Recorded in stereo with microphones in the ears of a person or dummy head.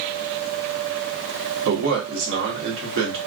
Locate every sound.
1.6 s a man speaking: 70° right (ahead or behind), 1.4 m